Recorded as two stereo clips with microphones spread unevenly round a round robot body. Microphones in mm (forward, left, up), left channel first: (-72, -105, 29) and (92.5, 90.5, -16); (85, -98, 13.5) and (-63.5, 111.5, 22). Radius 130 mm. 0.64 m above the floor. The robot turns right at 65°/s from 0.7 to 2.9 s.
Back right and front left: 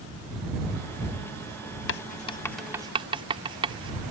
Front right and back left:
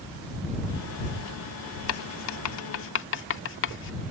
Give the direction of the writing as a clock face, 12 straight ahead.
3 o'clock.